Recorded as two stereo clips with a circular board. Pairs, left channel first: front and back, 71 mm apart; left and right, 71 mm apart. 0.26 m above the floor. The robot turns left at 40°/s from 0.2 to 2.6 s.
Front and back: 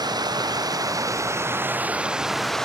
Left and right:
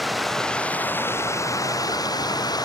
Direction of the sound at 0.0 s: Straight behind.